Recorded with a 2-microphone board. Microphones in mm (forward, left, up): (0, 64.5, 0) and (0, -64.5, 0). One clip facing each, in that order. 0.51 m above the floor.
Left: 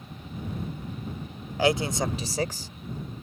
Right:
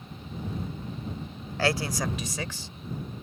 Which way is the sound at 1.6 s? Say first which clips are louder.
Left 3 dB; 15° left (ahead or behind).